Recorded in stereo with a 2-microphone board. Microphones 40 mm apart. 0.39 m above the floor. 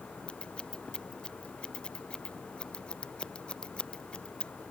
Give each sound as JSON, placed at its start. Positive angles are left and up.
{"t": 0.3, "sound": "scissors", "side_deg": 25}